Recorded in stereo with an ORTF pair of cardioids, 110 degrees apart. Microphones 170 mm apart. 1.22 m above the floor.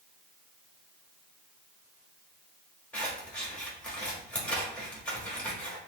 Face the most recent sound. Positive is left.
turn(degrees=5)